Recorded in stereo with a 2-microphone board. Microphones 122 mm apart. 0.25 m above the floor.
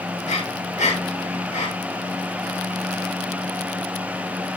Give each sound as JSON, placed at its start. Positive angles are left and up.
{"t": 0.2, "sound": "breathing", "side_deg": 85, "distance_m": 10.0}